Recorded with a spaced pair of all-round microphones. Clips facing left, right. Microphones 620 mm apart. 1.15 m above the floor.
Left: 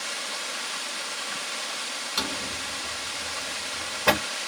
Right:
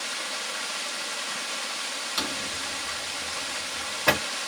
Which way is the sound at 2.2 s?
40° left (ahead or behind).